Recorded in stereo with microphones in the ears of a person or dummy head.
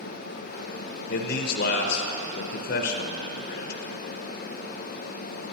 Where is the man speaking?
65° left (ahead or behind), 0.6 m.